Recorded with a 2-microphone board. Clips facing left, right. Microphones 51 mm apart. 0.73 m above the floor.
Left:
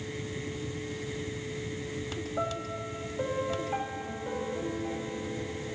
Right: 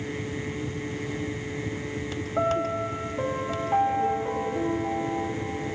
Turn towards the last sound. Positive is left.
turn(degrees=-70)  # may be behind; listen again after turning